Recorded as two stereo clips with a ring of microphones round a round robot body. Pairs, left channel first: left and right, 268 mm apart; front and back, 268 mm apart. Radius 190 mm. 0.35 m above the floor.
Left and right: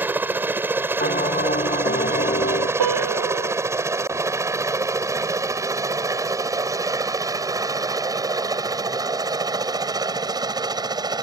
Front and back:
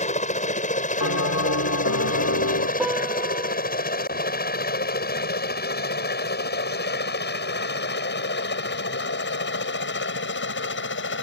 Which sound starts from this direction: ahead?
A helicopter, at 0.0 s.